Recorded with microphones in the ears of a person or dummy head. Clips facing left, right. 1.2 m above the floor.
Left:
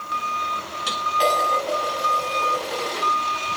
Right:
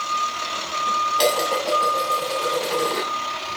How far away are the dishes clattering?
About 7.5 m.